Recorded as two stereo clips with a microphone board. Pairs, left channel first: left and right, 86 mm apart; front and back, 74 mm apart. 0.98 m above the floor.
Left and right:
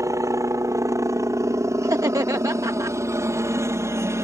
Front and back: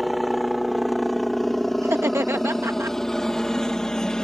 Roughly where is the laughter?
Behind right.